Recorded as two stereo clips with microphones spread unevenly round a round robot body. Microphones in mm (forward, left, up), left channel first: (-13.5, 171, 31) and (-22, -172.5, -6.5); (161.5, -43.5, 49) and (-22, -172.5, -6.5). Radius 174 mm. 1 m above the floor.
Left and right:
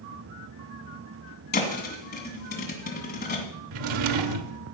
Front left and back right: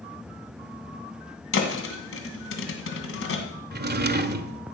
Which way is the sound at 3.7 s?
95° right.